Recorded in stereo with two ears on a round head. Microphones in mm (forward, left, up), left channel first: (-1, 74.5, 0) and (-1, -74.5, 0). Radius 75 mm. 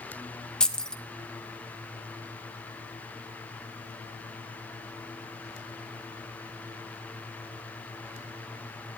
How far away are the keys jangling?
About 0.7 m.